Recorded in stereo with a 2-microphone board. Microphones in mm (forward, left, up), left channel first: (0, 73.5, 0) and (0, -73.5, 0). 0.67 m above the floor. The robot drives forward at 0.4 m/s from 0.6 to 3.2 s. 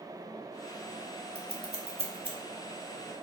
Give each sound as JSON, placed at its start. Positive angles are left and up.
{"t": 1.4, "sound": "scissors", "side_deg": -45, "distance_m": 0.6}